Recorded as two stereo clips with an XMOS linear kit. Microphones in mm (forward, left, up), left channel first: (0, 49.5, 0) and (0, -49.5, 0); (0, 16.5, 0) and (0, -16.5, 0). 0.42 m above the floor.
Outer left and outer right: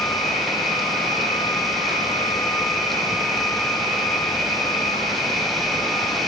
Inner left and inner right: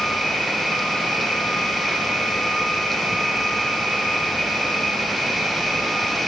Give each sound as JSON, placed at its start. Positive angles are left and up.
{"t": 0.0, "sound": "an insect", "side_deg": 0, "distance_m": 4.5}